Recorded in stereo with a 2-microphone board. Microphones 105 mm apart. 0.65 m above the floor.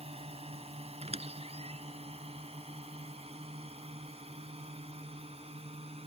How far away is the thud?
No thud in this recording.